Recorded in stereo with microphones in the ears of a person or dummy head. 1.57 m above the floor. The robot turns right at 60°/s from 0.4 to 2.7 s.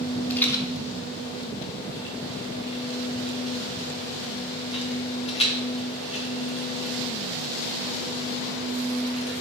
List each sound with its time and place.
0.3 s a rattle: 10° left (ahead or behind), 0.6 m; by 9.3 s 30° left (ahead or behind), 0.6 m